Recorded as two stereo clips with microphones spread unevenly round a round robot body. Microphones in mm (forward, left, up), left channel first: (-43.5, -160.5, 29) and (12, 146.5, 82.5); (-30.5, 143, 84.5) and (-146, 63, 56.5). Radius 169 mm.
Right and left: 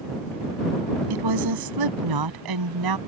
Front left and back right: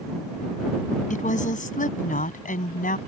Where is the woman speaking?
60° left; by 3.0 s 55° left.